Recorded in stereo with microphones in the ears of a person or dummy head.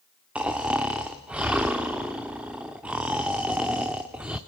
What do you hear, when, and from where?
0.3 s snoring: centre (ahead or behind), 0.7 m